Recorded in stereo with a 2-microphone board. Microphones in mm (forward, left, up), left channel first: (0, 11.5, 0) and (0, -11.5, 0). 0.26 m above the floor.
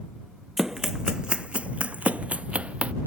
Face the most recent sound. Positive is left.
turn(degrees=-65)  # may be behind; listen again after turning